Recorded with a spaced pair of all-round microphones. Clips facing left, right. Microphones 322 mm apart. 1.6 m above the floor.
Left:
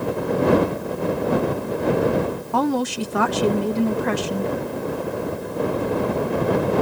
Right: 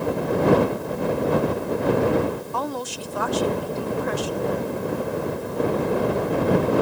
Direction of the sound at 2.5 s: 75° left (ahead or behind).